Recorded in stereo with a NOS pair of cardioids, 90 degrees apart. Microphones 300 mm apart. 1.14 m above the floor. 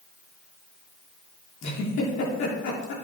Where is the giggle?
70° left, 2.5 m.